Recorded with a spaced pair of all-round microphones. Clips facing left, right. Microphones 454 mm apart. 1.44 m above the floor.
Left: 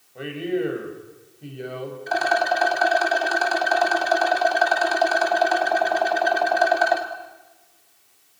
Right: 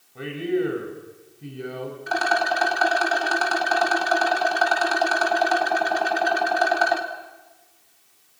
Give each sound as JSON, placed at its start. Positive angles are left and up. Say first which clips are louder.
{"t": 0.1, "sound": "a man speaking", "louder": "right 1 dB", "side_deg": -20, "distance_m": 6.5}
{"t": 2.1, "sound": "a rattle", "louder": "left 2 dB", "side_deg": -25, "distance_m": 3.0}